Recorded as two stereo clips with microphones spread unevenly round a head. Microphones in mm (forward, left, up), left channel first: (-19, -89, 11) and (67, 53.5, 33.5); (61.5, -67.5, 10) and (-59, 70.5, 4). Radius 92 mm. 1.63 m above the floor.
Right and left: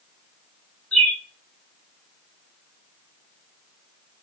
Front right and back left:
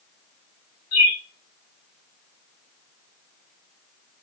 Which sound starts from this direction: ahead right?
A bird, at 0.9 s.